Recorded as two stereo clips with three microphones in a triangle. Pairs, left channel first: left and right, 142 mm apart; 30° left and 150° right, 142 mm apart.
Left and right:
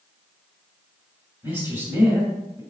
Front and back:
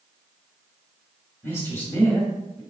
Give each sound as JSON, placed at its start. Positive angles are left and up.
{"t": 1.4, "sound": "a man speaking", "azimuth_deg": -25, "distance_m": 1.5}